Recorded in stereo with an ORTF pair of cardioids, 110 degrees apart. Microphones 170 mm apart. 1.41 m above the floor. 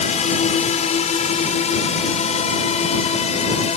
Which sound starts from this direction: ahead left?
A drone, at 0.0 s.